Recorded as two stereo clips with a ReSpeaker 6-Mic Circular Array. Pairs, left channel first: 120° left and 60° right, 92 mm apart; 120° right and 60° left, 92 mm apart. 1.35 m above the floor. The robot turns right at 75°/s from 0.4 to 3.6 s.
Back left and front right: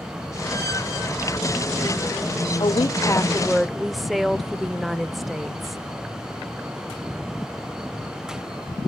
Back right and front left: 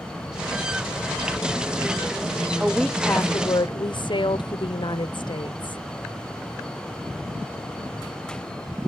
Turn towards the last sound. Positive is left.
turn(degrees=-150)